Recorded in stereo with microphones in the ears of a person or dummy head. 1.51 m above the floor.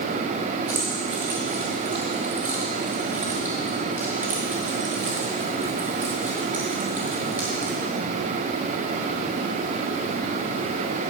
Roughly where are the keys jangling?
Centre.